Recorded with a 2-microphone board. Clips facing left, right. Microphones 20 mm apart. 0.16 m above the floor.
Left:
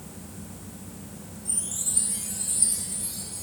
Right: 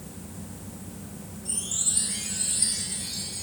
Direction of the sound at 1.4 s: 30° right (ahead or behind).